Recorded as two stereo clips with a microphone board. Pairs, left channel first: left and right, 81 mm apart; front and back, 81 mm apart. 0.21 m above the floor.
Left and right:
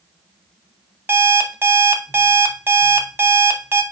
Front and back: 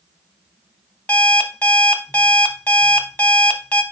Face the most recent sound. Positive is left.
turn(degrees=-55)